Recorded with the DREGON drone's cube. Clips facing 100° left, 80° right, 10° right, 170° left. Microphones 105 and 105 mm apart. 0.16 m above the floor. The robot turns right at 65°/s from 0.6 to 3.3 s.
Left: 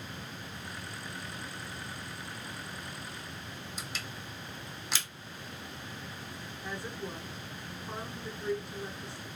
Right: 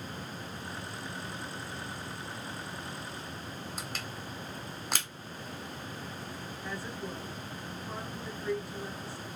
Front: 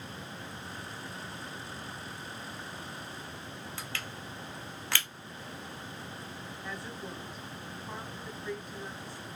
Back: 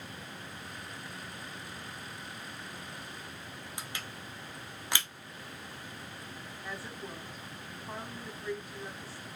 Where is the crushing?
115° right, 0.7 m.